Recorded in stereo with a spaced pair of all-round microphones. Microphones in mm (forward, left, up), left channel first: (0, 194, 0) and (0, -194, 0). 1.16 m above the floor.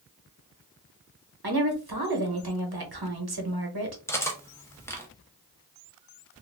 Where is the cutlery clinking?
5° left (ahead or behind), 0.6 m.